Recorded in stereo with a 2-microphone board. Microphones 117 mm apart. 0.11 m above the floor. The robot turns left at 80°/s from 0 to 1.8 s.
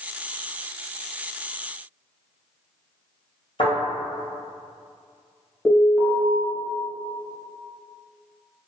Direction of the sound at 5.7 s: 5° left (ahead or behind).